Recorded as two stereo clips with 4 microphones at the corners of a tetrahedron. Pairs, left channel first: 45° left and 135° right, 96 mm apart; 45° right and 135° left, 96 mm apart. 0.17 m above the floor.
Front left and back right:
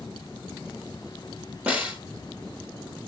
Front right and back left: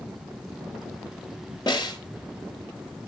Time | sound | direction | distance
1.7 | a snare drum | 65° right | 2.5 m